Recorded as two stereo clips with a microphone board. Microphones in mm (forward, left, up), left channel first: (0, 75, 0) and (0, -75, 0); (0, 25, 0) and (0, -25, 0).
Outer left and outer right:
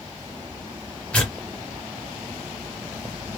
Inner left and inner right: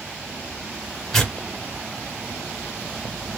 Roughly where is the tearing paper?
Centre.